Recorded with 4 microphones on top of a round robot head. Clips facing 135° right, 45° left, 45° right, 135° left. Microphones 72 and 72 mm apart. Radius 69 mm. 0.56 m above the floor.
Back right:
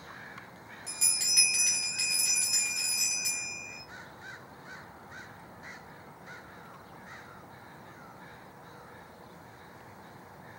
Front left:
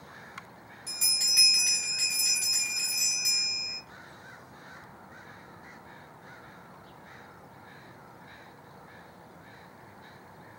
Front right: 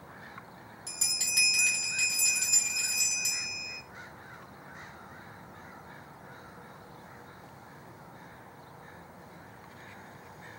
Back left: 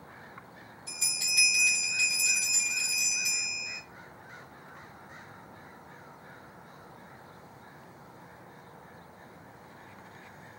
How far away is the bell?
About 1.6 m.